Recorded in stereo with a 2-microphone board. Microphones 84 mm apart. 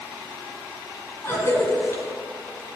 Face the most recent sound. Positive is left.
turn(degrees=30)  # may be behind; listen again after turning